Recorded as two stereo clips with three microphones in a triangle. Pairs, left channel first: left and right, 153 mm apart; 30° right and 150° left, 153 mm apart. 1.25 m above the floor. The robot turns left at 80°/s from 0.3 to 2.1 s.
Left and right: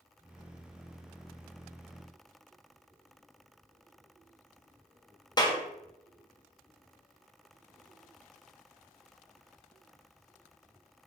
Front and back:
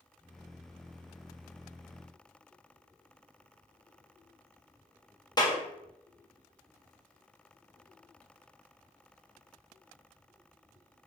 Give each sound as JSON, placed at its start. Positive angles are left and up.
{"t": 5.4, "sound": "a clap", "azimuth_deg": 30, "distance_m": 0.6}